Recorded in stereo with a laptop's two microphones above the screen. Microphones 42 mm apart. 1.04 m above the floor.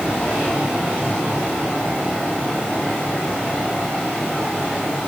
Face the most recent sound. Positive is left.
No sound to turn to.